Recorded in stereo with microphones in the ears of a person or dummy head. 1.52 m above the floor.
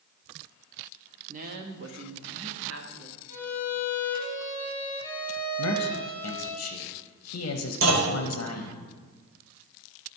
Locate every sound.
1.3 s a woman speaking: 30° right (ahead or behind), 0.7 m; by 3.2 s 80° right, 1.7 m
3.3 s a violin: 10° left (ahead or behind), 3 m
5.6 s a man speaking: 80° left, 0.8 m
7.8 s a clunk: 70° right (ahead or behind), 1.9 m